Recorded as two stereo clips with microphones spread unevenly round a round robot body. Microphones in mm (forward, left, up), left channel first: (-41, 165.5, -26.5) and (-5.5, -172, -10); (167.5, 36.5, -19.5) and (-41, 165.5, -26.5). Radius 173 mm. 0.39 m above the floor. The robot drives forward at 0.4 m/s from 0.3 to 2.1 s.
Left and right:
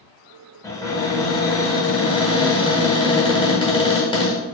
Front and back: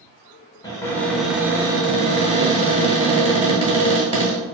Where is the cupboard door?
30° left, 0.8 m; by 4.4 s 145° left, 0.7 m.